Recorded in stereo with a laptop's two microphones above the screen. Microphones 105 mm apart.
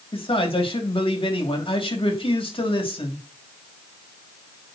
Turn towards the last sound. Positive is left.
turn(degrees=60)  # may be behind; listen again after turning